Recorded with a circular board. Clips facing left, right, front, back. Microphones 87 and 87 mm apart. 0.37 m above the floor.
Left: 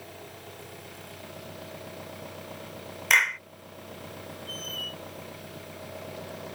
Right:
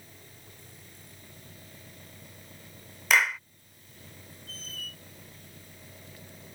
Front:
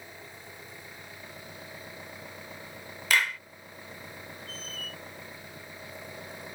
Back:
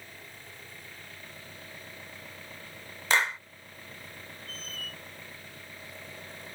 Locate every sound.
0.0 s an engine running: 75° left
3.1 s a clap: 170° right
4.5 s a squeak: 135° left